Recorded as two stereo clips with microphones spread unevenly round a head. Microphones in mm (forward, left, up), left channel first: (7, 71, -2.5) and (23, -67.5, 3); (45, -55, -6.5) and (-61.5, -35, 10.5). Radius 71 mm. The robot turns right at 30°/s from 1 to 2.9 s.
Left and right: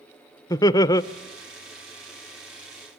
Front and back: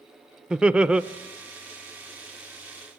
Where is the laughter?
80° left, 0.6 m.